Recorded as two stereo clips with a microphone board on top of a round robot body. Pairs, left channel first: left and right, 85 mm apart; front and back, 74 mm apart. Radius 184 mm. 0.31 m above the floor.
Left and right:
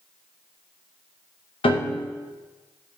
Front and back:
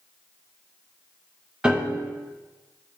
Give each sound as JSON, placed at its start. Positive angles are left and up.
{"t": 1.6, "sound": "a piano", "azimuth_deg": 100, "distance_m": 0.8}